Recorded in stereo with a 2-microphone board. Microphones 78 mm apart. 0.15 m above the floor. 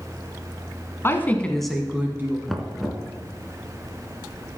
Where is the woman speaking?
30° left (ahead or behind), 1.3 m; by 2.4 s 30° right (ahead or behind), 1.3 m.